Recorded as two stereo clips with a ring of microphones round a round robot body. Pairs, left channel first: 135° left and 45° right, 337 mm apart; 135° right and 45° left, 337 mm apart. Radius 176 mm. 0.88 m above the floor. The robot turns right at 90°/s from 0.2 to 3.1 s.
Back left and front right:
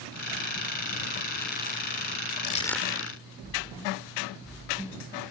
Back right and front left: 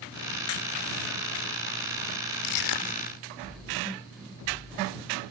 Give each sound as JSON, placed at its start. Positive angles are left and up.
{"t": 2.4, "sound": "crushing", "azimuth_deg": -165}